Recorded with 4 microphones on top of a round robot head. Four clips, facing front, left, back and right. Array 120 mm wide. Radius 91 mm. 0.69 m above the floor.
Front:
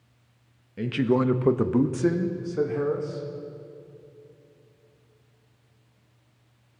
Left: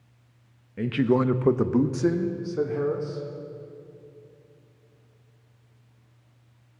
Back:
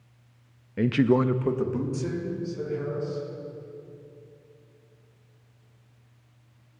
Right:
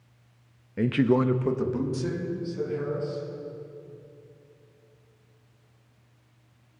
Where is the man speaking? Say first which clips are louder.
Even, back 2 dB; 150° right, 0.7 m; by 3.2 s 40° left, 2.5 m.